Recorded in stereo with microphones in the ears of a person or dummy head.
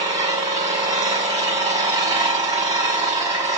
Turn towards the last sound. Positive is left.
turn(degrees=-15)  # may be behind; listen again after turning